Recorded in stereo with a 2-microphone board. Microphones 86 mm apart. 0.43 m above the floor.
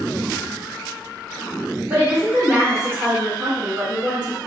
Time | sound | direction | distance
1.9 | a woman speaking | 30° right (ahead or behind) | 1.4 m